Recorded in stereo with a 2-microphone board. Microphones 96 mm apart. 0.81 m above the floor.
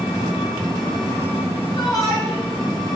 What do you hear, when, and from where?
0.0 s an engine running: 85° left, 1.4 m
1.8 s a shout: 40° left (ahead or behind), 1.2 m